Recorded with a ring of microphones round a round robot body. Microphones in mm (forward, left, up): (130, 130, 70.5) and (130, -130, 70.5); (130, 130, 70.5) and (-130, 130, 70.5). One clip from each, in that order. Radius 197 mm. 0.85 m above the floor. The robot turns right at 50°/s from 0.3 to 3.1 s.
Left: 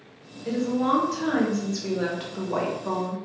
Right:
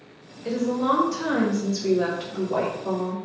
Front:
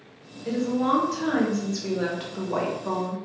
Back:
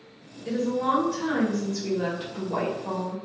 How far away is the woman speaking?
About 1.1 m.